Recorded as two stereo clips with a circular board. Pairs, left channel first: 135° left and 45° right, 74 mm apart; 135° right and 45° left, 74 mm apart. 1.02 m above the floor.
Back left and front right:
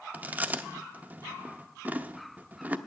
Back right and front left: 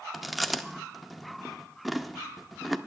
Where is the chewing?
40° right, 0.6 m.